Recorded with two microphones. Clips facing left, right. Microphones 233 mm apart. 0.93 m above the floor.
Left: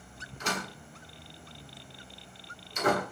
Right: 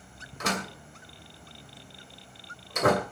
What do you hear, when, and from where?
0.4 s a door slam: 90° right, 3 m